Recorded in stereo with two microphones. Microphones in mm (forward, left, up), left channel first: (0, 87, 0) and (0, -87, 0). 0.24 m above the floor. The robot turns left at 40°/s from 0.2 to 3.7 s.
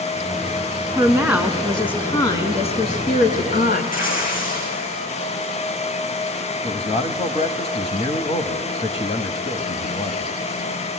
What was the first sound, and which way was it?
A woman speaking, 155° right.